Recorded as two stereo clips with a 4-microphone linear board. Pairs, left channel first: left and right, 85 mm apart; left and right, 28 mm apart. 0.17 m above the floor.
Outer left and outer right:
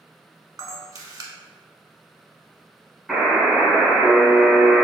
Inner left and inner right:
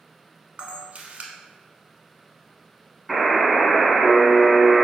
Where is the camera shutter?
45° right (ahead or behind), 0.8 m.